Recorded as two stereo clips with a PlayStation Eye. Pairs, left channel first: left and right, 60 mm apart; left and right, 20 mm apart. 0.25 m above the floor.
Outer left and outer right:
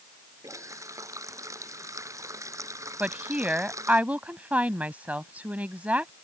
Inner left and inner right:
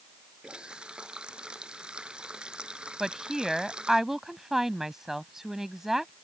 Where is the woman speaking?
25° right (ahead or behind).